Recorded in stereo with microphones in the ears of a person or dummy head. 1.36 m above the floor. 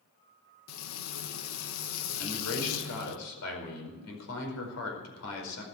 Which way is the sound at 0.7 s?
75° left (ahead or behind).